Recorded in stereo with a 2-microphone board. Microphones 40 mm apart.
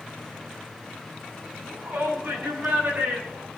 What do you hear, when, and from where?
1.7 s a shout: 65° right (ahead or behind), 7.5 m; by 3.5 s 50° right (ahead or behind), 8.5 m